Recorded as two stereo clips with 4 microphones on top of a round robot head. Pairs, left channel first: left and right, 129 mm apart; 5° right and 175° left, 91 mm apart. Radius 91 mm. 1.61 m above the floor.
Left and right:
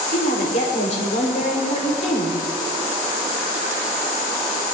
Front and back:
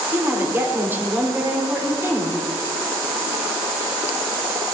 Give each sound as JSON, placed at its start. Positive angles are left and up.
{"t": 0.1, "sound": "a woman speaking", "azimuth_deg": 115, "distance_m": 4.5}